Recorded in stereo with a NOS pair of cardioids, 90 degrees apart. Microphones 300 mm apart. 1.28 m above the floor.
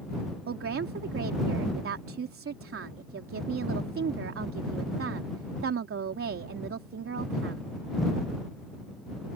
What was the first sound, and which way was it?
A woman speaking, 45° right.